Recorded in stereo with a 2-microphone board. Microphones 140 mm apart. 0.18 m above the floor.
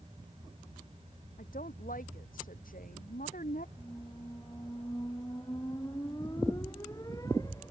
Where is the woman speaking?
80° left.